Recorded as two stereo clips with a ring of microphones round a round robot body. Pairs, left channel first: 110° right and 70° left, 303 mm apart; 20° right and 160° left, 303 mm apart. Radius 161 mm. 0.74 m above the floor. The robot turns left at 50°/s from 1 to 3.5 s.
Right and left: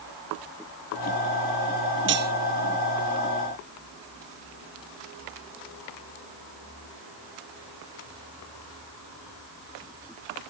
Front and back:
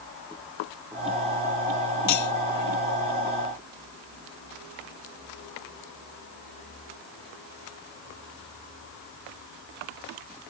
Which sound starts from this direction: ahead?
Cutlery clinking, at 2.1 s.